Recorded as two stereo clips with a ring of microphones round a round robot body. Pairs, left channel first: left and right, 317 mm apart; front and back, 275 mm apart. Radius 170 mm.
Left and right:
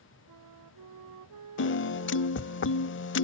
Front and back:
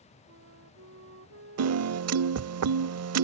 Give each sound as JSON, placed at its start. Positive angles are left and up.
{"t": 0.3, "sound": "a flute", "azimuth_deg": -125}
{"t": 1.6, "sound": "a piano", "azimuth_deg": 145}